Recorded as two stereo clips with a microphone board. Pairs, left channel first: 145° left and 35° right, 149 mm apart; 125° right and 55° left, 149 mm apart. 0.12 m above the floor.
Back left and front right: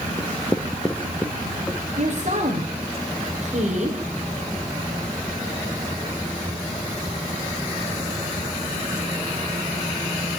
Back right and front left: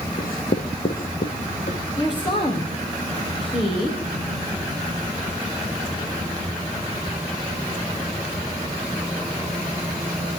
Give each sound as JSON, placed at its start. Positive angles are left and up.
{"t": 0.2, "sound": "writing", "azimuth_deg": -135, "distance_m": 3.0}
{"t": 2.0, "sound": "a woman speaking", "azimuth_deg": -70, "distance_m": 7.0}